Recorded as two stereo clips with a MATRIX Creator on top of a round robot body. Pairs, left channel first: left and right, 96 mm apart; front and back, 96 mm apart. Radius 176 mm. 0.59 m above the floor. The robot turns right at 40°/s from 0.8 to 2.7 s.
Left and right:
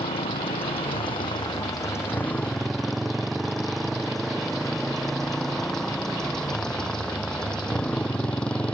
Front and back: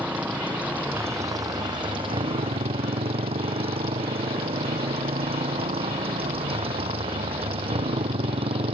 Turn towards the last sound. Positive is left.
turn(degrees=170)